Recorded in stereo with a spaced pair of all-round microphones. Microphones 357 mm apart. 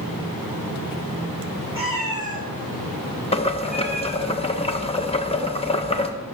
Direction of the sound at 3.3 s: 15° left (ahead or behind).